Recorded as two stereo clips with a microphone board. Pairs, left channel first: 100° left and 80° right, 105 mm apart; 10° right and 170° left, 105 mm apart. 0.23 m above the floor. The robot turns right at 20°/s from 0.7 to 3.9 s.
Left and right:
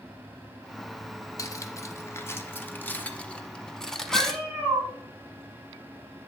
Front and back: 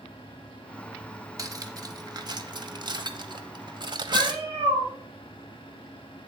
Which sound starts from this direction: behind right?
A cat meowing, at 4.1 s.